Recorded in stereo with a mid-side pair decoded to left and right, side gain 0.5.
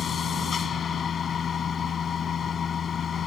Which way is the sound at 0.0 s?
45° left.